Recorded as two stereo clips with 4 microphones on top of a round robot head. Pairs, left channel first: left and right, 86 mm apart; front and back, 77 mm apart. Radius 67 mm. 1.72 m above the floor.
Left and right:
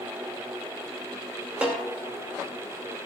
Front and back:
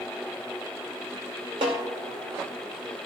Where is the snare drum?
165° right, 2.5 m.